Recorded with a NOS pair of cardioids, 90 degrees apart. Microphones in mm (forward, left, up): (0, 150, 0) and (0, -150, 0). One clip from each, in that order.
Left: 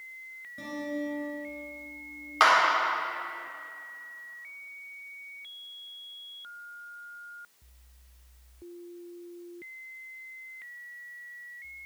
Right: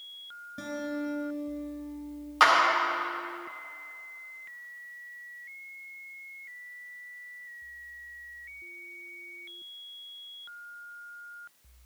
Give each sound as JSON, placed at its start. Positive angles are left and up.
{"t": 0.6, "sound": "a guitar", "azimuth_deg": -40, "distance_m": 3.5}
{"t": 2.4, "sound": "a clap", "azimuth_deg": 5, "distance_m": 4.0}